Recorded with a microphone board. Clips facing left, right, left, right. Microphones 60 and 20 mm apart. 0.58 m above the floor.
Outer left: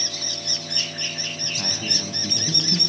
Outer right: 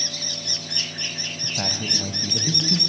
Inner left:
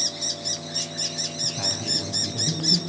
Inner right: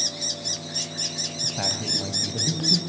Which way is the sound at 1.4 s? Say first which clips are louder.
Outer right 3 dB, even; 75° right (ahead or behind).